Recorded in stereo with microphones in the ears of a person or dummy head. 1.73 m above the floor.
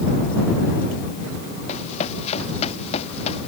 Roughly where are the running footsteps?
Left.